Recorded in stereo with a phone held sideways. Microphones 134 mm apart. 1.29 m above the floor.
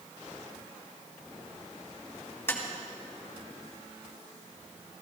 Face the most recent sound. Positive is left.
turn(degrees=20)  # may be behind; listen again after turning